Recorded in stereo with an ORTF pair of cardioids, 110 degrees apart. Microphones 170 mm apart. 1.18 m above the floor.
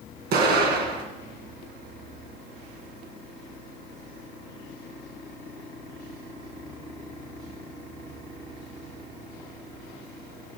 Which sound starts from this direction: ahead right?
An explosion, at 0.3 s.